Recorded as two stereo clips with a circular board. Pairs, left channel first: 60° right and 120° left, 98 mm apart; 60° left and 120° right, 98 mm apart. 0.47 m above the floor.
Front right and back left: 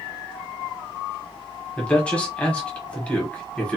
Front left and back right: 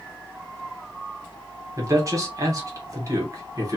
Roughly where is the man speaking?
Behind right.